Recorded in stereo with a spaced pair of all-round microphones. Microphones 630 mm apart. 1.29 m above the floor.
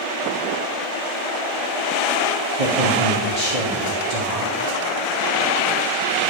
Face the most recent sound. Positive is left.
turn(degrees=-80)